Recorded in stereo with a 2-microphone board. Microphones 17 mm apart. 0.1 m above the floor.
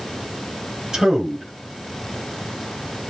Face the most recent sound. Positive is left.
turn(degrees=-40)  # may be behind; listen again after turning